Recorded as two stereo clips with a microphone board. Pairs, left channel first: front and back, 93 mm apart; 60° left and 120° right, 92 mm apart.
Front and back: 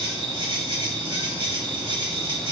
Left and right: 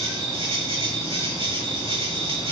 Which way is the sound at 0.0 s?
145° right.